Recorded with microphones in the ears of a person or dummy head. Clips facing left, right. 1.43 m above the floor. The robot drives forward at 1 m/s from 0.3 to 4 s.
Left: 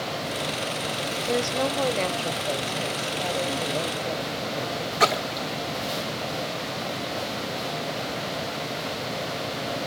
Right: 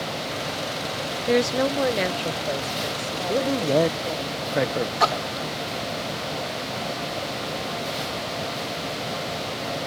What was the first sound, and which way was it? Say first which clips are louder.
A woman speaking: right 5 dB; 30° right (ahead or behind).